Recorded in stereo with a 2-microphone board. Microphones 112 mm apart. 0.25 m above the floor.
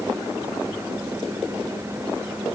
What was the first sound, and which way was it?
Only background noise.